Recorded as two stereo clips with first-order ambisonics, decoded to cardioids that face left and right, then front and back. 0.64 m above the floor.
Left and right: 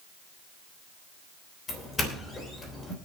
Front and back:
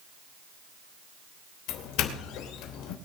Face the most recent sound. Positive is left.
turn(degrees=20)